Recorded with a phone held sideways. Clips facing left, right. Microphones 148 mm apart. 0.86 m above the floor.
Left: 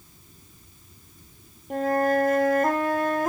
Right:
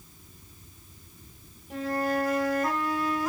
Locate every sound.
1.7 s a flute: 50° left (ahead or behind), 0.8 m